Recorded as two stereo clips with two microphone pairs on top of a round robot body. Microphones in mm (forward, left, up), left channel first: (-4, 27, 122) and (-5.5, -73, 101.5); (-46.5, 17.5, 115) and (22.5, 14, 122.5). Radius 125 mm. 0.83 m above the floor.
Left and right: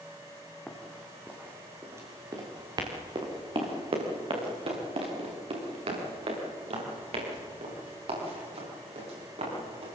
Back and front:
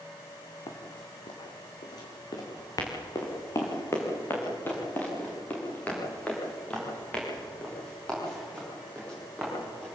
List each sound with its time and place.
0.7 s running footsteps: 170° left, 3.5 m; by 10.0 s 100° right, 12.5 m